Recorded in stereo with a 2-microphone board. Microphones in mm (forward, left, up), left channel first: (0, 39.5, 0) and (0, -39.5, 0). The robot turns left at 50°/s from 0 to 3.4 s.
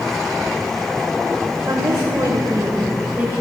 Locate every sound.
1.7 s a woman speaking: 70° right, 1.6 m; by 3.3 s 150° right, 1.6 m